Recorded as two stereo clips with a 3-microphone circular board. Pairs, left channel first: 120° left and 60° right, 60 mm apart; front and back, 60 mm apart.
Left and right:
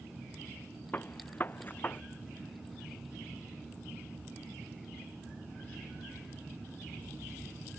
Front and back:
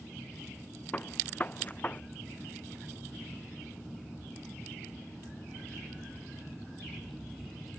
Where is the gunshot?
65° left.